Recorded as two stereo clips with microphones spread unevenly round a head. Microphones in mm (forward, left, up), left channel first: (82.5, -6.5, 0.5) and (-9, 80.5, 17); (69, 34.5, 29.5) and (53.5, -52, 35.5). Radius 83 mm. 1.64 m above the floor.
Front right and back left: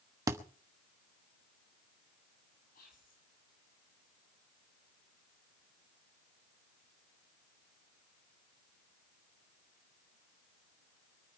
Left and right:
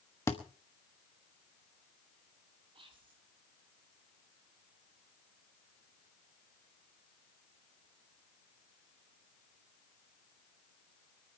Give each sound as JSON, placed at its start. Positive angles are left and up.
{"t": 0.3, "sound": "a thud", "azimuth_deg": 135, "distance_m": 1.1}
{"t": 2.7, "sound": "whispering", "azimuth_deg": -75, "distance_m": 5.5}